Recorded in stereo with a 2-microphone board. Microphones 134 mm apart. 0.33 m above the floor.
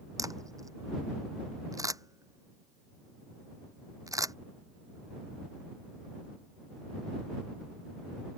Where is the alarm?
I don't hear an alarm.